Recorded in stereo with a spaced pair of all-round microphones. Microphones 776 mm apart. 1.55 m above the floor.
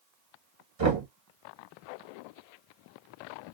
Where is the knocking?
45° right (ahead or behind), 1.5 m.